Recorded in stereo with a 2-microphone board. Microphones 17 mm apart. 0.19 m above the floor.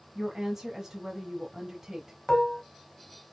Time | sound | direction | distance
0.1 | a woman speaking | 30° right (ahead or behind) | 1.5 m
2.3 | dishes clattering | 40° left (ahead or behind) | 0.8 m